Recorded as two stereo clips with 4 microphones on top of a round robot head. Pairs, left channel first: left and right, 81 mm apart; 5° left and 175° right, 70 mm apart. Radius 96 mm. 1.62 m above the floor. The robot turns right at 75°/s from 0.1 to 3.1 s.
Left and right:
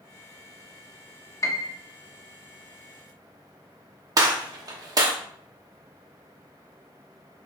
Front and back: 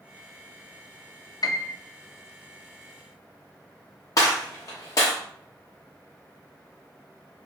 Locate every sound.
1.4 s a piano: 35° left, 0.6 m; by 1.7 s 60° left, 0.6 m
4.2 s a gunshot: 50° right, 0.9 m